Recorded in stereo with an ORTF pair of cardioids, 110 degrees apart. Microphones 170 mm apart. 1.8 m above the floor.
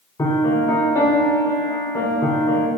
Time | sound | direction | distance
0.2 | a piano | 20° left | 4 m